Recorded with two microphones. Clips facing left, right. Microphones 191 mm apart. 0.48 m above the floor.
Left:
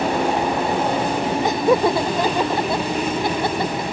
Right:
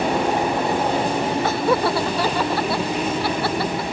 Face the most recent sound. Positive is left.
turn(degrees=20)  # may be behind; listen again after turning